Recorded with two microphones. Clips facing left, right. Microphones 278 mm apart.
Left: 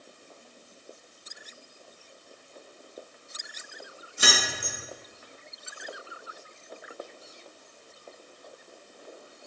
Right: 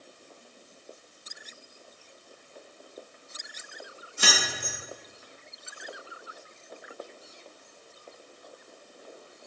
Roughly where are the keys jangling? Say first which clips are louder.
Left 1 dB; left.